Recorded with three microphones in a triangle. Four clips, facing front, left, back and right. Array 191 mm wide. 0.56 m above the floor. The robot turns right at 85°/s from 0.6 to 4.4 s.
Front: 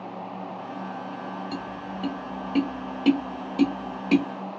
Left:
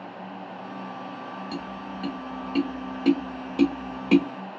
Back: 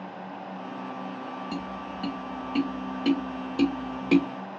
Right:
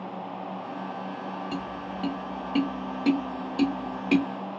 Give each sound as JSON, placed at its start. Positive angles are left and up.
{"t": 1.5, "sound": "tapping", "azimuth_deg": -120, "distance_m": 1.2}